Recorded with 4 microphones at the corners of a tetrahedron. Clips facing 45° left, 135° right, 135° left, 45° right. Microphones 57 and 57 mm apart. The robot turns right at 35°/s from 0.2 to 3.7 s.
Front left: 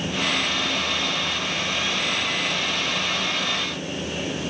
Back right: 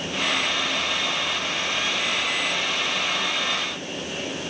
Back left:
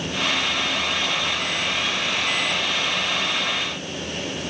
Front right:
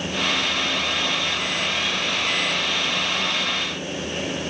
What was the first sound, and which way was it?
Only background noise.